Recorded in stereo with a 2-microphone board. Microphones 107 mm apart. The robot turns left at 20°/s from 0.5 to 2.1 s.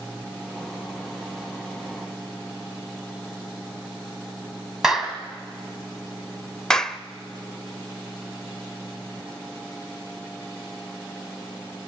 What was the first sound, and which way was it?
A clap, 5° right (ahead or behind).